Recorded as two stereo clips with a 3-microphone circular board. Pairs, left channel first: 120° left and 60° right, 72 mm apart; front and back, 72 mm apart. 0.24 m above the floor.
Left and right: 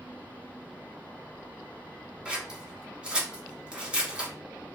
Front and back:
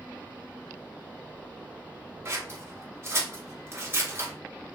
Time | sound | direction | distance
2.2 | scissors | 130° right | 1.0 m